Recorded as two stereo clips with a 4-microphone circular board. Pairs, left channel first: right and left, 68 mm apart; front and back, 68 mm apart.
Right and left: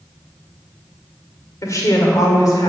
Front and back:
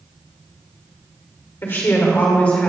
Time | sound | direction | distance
1.6 | a woman speaking | 55° right | 2 m